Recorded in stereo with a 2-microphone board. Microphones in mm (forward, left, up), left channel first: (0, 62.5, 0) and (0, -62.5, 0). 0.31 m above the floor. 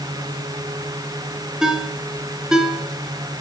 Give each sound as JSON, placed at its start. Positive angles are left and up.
{"t": 1.6, "sound": "a ringtone", "side_deg": -5, "distance_m": 2.5}